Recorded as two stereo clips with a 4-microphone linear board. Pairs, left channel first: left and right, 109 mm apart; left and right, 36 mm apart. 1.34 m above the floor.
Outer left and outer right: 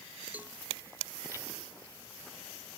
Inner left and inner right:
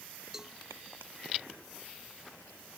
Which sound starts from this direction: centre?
A cowbell, at 0.3 s.